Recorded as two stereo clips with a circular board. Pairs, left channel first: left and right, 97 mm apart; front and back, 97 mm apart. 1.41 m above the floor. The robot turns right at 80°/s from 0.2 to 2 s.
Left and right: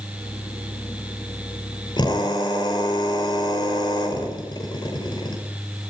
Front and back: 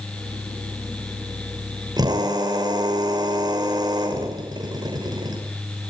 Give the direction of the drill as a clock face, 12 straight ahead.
8 o'clock.